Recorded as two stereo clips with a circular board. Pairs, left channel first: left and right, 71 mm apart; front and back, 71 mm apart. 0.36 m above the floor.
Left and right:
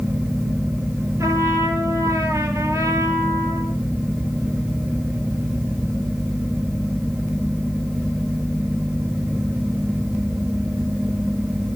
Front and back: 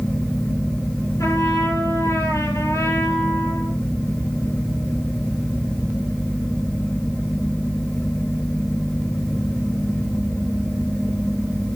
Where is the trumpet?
45° right, 4.5 m.